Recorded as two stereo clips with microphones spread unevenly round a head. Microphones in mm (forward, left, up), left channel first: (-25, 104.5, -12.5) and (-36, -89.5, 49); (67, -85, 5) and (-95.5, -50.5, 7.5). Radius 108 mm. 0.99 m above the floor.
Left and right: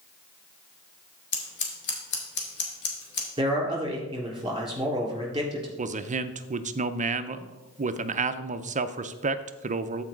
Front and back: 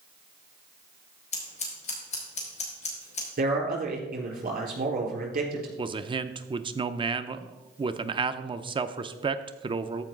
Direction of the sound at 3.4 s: 165° right.